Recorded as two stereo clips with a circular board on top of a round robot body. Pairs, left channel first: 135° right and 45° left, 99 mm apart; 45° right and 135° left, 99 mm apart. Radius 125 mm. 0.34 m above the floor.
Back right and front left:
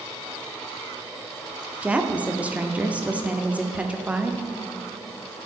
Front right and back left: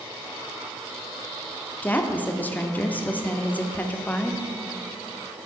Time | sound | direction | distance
1.8 | a woman speaking | 5° right | 0.9 m